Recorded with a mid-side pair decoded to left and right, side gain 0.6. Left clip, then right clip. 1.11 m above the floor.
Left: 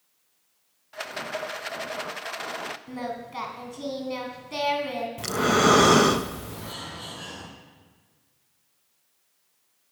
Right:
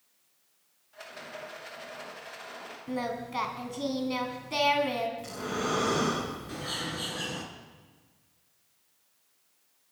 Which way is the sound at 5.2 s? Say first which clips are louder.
Left 12 dB; 70° left.